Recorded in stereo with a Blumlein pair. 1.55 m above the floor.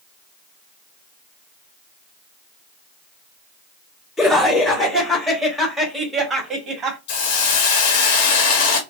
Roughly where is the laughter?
Ahead.